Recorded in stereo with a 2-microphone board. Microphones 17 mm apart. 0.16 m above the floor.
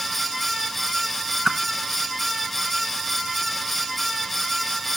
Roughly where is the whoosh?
Right.